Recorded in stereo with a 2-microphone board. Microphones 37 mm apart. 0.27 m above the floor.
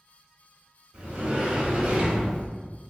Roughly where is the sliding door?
Right.